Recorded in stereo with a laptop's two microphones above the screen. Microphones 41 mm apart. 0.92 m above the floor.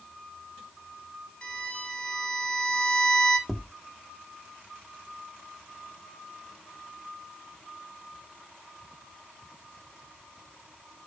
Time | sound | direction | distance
1.4 | a violin | 30° left (ahead or behind) | 3 m
3.5 | tapping | centre (ahead or behind) | 1.1 m